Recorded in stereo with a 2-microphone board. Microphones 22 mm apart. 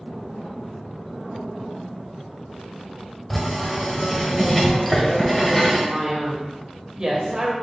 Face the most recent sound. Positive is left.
turn(degrees=-35)  # may be behind; listen again after turning